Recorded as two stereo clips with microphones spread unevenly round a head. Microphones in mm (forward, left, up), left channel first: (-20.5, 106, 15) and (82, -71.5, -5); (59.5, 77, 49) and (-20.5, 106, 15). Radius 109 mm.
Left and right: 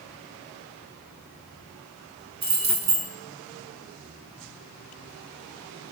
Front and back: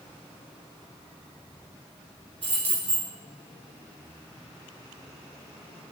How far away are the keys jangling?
About 2.5 m.